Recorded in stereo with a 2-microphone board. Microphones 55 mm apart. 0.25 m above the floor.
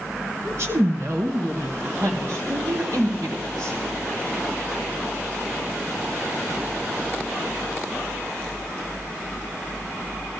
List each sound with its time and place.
0.5 s a woman speaking: 50° right (ahead or behind), 2 m; by 3.8 s 65° right (ahead or behind), 4.5 m